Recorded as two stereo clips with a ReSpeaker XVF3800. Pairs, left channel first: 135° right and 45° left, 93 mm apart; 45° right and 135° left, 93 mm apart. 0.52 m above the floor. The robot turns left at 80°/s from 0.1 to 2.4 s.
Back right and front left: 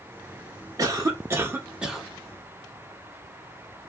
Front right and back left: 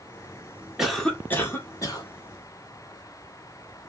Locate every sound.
0.8 s a cough: 50° left, 1.2 m; by 2.1 s 50° right, 1.2 m